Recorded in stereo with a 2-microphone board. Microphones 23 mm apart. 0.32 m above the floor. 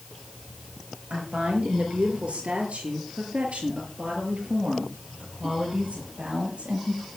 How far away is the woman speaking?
About 6.5 m.